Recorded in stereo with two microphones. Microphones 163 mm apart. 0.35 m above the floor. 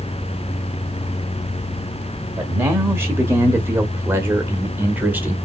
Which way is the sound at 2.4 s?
15° right (ahead or behind).